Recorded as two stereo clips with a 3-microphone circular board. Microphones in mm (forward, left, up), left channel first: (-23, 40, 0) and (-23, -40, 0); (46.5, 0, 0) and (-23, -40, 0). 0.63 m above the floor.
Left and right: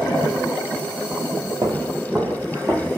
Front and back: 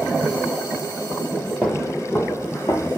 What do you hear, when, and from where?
1.6 s footsteps: 55° right, 1.1 m; by 2.9 s 10° right, 1.5 m